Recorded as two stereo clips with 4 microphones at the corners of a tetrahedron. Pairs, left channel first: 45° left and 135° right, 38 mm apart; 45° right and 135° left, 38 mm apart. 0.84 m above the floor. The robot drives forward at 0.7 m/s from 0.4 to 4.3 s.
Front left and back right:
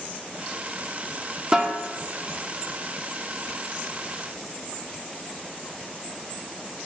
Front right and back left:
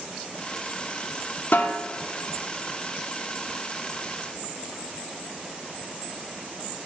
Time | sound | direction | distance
1.5 | a snare drum | 70° right | 1.7 m